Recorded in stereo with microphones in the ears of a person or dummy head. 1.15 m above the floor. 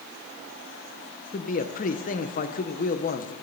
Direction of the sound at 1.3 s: 35° left (ahead or behind).